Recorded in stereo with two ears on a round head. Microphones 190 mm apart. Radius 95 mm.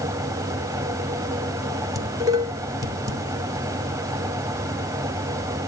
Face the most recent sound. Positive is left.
turn(degrees=-15)  # may be behind; listen again after turning